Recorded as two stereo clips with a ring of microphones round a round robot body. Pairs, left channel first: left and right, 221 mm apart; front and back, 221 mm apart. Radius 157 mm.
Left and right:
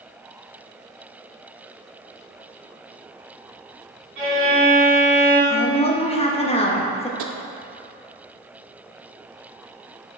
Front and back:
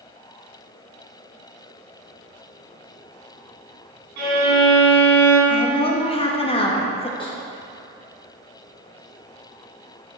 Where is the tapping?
75° right, 0.5 m.